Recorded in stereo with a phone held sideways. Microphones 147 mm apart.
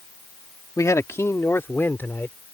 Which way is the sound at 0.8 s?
20° left (ahead or behind).